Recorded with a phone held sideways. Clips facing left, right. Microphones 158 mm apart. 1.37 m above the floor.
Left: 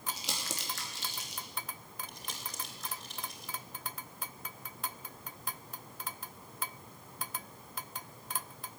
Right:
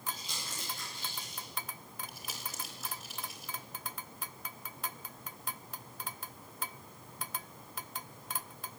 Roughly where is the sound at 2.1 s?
Centre.